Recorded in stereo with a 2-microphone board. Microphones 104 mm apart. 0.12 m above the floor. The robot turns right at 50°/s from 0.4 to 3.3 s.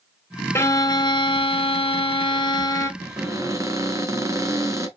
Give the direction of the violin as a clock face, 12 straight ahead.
11 o'clock.